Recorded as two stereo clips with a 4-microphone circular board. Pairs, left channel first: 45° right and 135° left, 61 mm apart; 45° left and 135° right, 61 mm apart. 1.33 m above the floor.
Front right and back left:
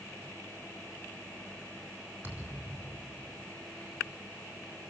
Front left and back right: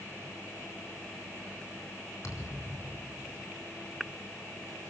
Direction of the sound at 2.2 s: 75° left.